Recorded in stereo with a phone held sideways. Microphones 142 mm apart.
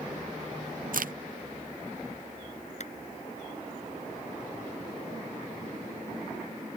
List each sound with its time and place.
0.9 s a crack: 80° right
2.8 s a clap: 55° left (ahead or behind)